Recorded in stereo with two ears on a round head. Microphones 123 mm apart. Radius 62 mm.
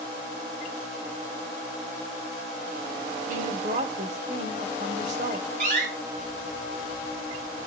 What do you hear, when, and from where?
3.3 s a woman speaking: 60° right (ahead or behind), 3 m
5.6 s a door slam: 55° right (ahead or behind), 6.5 m